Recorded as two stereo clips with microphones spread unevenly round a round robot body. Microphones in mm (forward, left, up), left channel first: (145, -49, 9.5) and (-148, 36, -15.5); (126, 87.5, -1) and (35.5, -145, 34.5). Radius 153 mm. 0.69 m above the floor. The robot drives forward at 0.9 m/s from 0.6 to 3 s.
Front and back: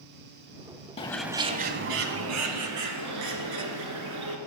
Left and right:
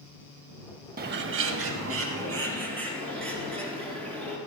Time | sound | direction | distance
1.0 | a bird | 80° right | 0.7 m